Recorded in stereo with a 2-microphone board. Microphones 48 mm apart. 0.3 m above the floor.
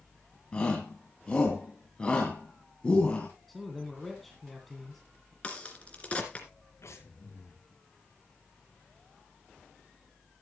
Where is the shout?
20° left (ahead or behind), 2.5 m.